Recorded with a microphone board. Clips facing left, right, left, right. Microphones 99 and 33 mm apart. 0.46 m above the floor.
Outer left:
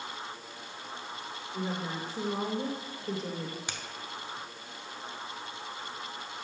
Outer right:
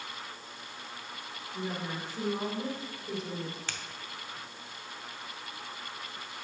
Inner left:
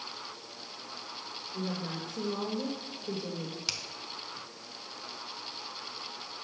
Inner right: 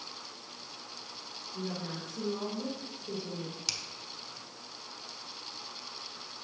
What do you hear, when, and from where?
1.5 s a woman speaking: 35° left (ahead or behind), 2 m
3.7 s a finger snap: 20° left (ahead or behind), 0.8 m